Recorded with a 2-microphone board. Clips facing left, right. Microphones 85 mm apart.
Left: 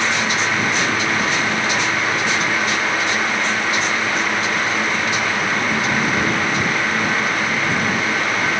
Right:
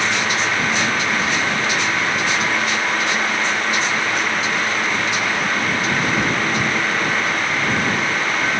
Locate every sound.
Only background noise.